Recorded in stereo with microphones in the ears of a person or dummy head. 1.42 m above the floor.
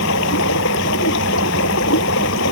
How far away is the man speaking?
No man speaking in this recording.